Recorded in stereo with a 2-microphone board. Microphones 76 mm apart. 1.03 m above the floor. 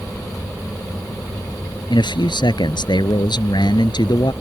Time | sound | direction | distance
1.9 | a man speaking | 80° left | ?